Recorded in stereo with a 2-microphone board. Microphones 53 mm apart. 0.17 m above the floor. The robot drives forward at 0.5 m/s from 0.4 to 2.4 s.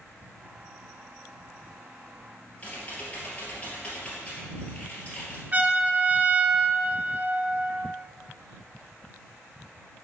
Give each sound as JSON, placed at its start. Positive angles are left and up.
{"t": 2.6, "sound": "typing on a keyboard", "side_deg": 25, "distance_m": 2.5}
{"t": 5.5, "sound": "a trumpet", "side_deg": -35, "distance_m": 0.5}